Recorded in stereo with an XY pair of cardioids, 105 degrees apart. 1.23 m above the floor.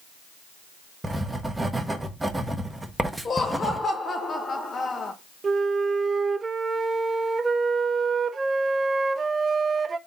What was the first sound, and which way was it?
Writing, 10° right.